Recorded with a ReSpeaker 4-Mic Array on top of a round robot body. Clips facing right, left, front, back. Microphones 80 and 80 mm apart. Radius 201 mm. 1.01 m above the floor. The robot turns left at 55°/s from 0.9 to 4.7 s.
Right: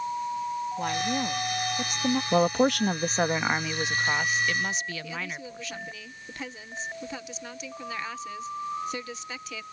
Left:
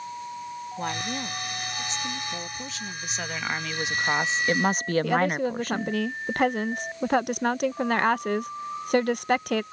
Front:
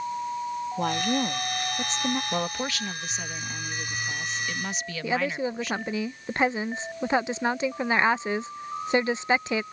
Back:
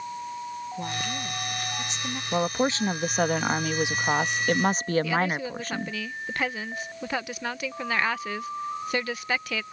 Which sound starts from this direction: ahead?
A woman speaking, at 0.8 s.